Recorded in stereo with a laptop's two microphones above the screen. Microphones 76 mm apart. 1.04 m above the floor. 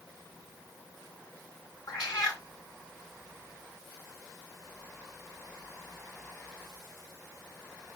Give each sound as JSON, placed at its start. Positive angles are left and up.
{"t": 1.9, "sound": "a cat meowing", "side_deg": 50, "distance_m": 3.0}